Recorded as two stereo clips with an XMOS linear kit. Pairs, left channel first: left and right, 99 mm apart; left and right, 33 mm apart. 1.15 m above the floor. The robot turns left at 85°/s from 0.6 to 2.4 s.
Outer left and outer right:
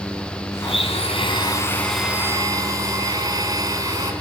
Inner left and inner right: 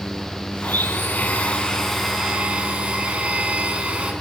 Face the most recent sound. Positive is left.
turn(degrees=-35)